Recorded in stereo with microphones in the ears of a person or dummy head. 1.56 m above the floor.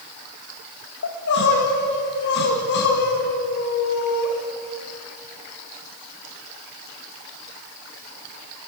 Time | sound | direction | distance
1.0 | crying | 60° left (ahead or behind) | 2.5 m